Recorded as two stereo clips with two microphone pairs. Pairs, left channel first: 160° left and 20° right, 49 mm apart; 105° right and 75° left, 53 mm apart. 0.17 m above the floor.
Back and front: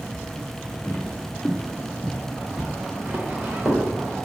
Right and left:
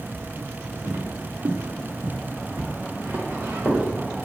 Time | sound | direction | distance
0.8 | footsteps | 120° left | 1.0 m